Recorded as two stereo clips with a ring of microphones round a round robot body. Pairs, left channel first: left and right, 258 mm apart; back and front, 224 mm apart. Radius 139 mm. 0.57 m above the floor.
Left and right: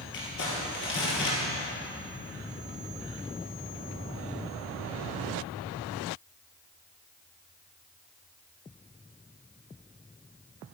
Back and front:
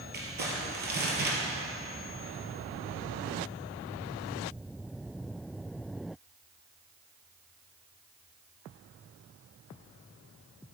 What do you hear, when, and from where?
0.1 s crumpling: 45° left, 3 m